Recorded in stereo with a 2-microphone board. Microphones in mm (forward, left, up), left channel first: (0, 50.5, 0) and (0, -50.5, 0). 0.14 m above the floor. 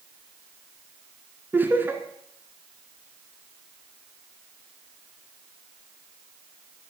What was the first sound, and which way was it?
Laughter, 20° right (ahead or behind).